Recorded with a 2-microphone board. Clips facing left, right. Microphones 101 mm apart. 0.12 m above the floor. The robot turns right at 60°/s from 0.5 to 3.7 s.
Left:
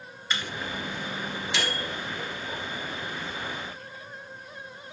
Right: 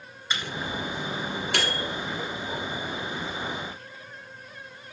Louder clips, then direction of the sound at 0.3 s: Right 1 dB; 15° right (ahead or behind).